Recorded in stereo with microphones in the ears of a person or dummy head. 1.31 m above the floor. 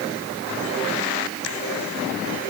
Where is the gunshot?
No gunshot in this recording.